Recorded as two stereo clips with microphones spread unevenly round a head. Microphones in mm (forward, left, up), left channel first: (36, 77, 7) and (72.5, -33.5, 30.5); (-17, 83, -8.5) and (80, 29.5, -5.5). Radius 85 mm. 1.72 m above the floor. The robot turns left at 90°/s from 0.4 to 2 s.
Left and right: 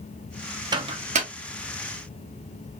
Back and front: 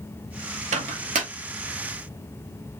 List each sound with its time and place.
0.7 s a microwave: 20° right, 0.9 m; by 1.3 s 75° right, 0.9 m